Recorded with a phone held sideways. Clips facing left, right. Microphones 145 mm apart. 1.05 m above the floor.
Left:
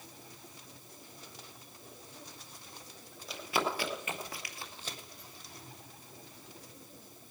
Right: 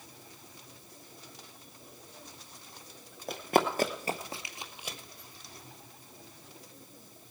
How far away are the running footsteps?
About 1.6 m.